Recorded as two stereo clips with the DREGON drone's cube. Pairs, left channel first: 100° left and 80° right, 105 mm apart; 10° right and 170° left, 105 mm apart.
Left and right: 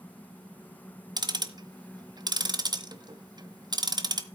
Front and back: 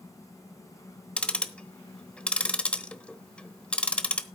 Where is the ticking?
85° right, 1.1 m.